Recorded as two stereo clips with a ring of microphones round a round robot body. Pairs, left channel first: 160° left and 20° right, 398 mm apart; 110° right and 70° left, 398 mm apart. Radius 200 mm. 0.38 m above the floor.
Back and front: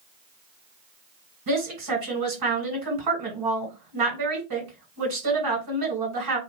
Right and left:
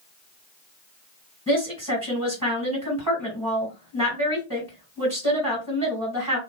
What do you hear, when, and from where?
1.5 s a woman speaking: 10° right, 1.9 m